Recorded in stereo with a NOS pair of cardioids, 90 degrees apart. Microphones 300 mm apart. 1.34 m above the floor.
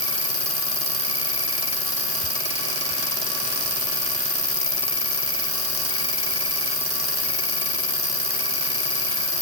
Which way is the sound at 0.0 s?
15° left.